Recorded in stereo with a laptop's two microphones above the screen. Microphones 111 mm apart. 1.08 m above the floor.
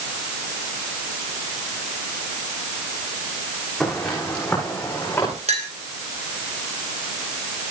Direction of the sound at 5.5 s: 75° right (ahead or behind).